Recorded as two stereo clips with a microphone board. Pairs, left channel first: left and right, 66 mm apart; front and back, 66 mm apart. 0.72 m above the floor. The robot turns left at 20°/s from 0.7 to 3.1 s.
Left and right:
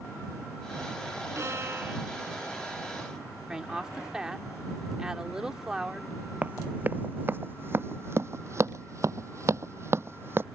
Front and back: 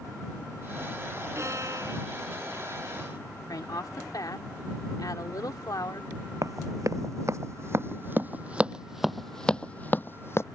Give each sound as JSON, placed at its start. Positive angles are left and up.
{"t": 1.4, "sound": "a violin", "azimuth_deg": -135}
{"t": 3.5, "sound": "a woman speaking", "azimuth_deg": -10}
{"t": 6.4, "sound": "running footsteps", "azimuth_deg": -155}